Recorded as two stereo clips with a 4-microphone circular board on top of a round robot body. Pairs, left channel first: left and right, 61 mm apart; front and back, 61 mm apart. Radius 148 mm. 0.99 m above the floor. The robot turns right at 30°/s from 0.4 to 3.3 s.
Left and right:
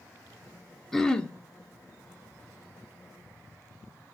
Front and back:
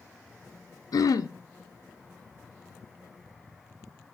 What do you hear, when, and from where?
0.9 s throat clearing: 5° left, 0.9 m; by 1.3 s 15° left, 0.9 m